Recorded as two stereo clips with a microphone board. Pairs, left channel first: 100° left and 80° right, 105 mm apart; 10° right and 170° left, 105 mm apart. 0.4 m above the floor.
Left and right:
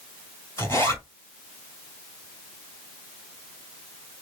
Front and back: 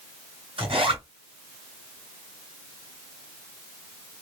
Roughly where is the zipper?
Behind.